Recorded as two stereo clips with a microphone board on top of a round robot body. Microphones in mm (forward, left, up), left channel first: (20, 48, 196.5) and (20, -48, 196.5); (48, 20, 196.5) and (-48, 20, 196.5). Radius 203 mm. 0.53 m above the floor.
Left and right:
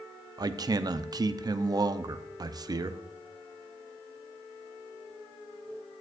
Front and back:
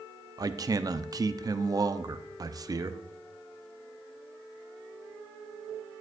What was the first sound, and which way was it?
A man speaking, 135° right.